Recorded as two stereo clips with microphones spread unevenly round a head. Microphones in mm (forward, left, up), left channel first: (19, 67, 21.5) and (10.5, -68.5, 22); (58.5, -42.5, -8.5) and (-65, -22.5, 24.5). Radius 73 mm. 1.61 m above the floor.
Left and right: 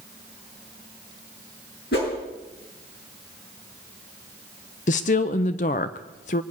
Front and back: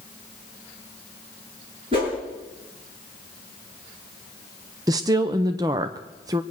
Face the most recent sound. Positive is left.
turn(degrees=120)